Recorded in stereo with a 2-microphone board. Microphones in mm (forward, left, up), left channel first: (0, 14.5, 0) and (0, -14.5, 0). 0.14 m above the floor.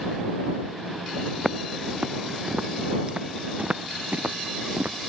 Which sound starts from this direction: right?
Footsteps, at 1.4 s.